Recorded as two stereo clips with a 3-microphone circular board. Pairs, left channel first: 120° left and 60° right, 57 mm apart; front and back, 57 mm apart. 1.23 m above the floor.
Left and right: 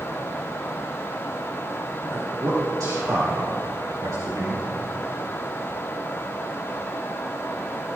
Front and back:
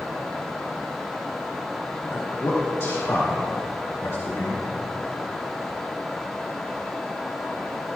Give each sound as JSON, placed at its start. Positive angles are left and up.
{"t": 2.1, "sound": "a man speaking", "azimuth_deg": -40, "distance_m": 2.0}